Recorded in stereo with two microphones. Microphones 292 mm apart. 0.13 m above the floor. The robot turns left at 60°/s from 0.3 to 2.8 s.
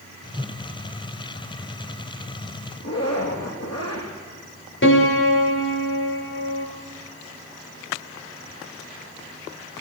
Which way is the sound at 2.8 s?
60° left (ahead or behind).